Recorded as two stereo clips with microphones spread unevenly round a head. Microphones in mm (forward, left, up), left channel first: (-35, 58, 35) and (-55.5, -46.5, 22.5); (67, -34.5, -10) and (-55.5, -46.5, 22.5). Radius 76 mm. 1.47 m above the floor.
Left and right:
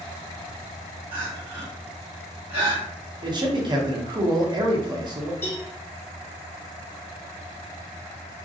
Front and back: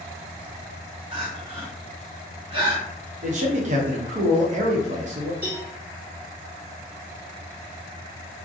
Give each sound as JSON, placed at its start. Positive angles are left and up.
{"t": 1.1, "sound": "crying", "azimuth_deg": -135, "distance_m": 1.3}
{"t": 3.2, "sound": "a man speaking", "azimuth_deg": -150, "distance_m": 0.8}
{"t": 5.4, "sound": "a cowbell", "azimuth_deg": 135, "distance_m": 1.1}